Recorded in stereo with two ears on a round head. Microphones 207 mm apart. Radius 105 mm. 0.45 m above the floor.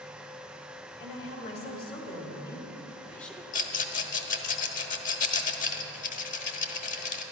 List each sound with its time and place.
1.0 s a woman speaking: 30° left (ahead or behind), 2.5 m; by 3.4 s centre (ahead or behind), 1.3 m
3.5 s a rattle: 35° left (ahead or behind), 1.0 m